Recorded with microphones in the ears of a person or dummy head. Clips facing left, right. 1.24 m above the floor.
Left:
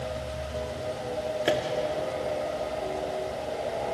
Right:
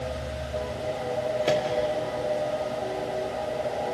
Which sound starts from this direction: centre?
A microwave, at 1.4 s.